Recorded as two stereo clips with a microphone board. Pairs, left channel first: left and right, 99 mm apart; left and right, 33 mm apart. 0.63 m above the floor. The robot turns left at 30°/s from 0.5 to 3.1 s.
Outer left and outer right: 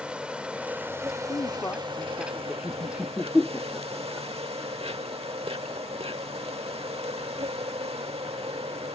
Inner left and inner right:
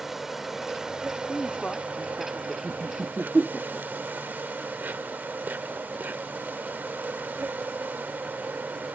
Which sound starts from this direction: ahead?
An insect, at 0.0 s.